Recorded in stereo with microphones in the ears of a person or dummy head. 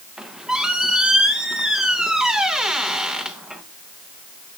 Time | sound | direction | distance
0.2 | a squeak | 5° right (ahead or behind) | 0.6 m